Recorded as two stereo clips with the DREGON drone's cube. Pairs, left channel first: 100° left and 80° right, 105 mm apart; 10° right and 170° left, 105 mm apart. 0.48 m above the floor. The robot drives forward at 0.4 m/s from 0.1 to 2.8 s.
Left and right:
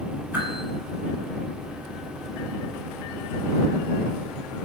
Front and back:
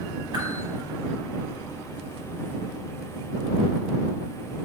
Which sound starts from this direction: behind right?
A whoosh, at 0.3 s.